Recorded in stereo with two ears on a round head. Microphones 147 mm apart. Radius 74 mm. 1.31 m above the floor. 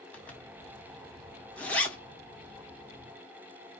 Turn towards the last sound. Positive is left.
turn(degrees=5)  # may be behind; listen again after turning